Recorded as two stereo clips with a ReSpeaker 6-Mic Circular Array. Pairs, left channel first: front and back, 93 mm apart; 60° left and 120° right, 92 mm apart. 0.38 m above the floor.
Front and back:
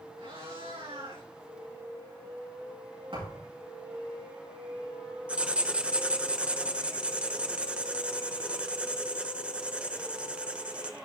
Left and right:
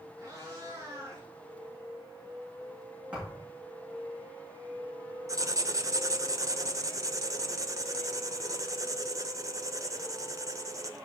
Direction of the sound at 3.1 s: 160° left.